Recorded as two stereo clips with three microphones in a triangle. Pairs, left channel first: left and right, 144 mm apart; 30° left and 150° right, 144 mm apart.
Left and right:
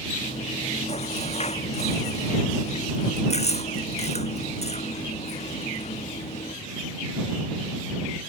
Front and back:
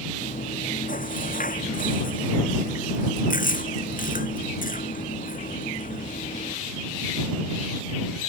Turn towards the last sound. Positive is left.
turn(degrees=50)